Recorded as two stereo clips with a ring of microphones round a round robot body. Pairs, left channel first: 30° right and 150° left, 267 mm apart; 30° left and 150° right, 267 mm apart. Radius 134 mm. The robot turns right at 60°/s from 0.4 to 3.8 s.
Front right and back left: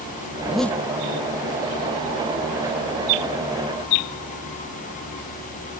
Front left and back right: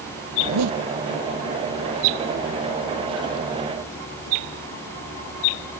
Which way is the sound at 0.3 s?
130° right.